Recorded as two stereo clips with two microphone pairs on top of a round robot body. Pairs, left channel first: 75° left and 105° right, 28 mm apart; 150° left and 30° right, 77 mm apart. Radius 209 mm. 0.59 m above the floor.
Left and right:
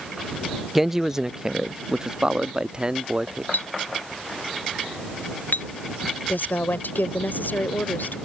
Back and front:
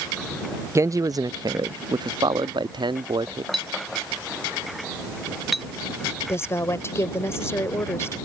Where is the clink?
60° left.